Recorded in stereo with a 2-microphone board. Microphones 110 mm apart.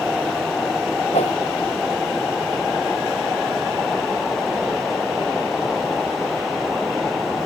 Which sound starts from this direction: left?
A whoosh, at 1.1 s.